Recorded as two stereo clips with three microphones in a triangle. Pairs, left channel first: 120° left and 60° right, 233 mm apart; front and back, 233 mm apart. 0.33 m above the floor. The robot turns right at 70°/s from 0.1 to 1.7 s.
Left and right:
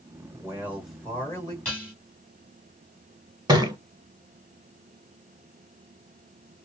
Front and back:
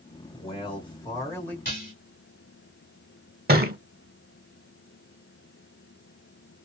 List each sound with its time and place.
0.3 s a man speaking: 10° right, 1.5 m; by 1.6 s 75° left, 1.5 m
1.6 s dishes clattering: 35° left, 1.7 m; by 1.9 s 40° left, 1.7 m
3.5 s a thud: 130° right, 0.6 m